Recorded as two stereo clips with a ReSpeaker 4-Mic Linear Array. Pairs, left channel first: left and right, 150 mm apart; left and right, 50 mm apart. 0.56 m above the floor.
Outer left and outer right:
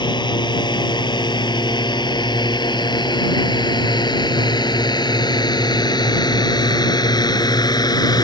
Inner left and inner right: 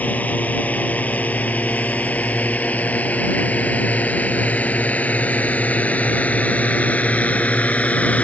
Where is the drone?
30° left (ahead or behind); by 8.2 s 25° left (ahead or behind).